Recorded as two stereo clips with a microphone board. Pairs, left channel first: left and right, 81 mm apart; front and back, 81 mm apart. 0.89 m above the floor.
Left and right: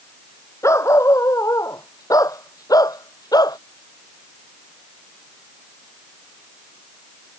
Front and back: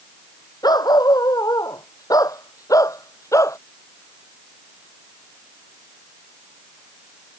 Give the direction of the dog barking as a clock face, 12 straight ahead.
11 o'clock.